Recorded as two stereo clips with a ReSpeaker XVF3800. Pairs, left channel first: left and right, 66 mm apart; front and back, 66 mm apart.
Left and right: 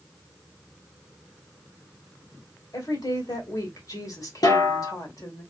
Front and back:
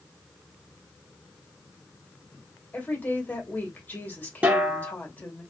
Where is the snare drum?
110° left, 2.5 m.